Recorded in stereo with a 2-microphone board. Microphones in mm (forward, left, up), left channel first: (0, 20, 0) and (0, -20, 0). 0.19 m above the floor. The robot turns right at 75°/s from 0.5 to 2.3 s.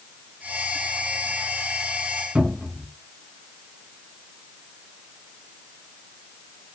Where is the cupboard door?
30° right (ahead or behind), 1.4 m.